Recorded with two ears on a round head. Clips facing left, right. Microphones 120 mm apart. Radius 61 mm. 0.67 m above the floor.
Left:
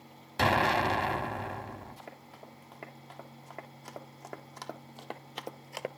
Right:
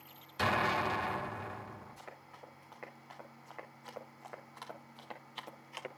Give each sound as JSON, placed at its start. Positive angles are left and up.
{"t": 0.4, "sound": "an explosion", "side_deg": 60, "distance_m": 1.5}
{"t": 2.0, "sound": "running footsteps", "side_deg": 30, "distance_m": 5.5}